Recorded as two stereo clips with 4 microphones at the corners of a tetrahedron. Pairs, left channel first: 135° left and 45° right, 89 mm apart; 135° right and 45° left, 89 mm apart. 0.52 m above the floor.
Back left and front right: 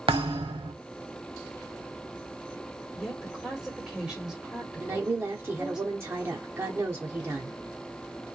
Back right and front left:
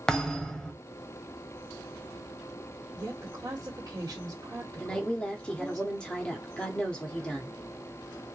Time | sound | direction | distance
0.1 | a thud | 50° right | 0.8 m
3.0 | a woman speaking | 30° left | 1.6 m
4.8 | a woman speaking | 65° right | 0.8 m